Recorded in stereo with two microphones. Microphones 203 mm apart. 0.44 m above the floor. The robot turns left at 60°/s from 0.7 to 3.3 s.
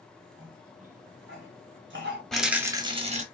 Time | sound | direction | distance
0.4 | a cough | 40° right (ahead or behind) | 2.5 m
2.3 | a rattle | 5° left | 0.8 m